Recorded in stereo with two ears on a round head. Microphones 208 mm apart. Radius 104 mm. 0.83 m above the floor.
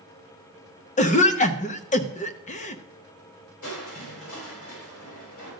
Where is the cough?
30° left (ahead or behind), 0.7 m.